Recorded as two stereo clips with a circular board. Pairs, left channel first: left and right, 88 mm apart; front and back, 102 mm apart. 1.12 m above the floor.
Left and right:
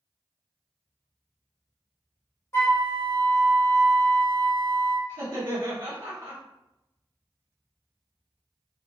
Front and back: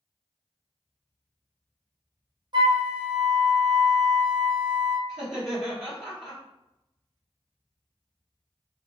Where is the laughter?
100° right, 1.3 m.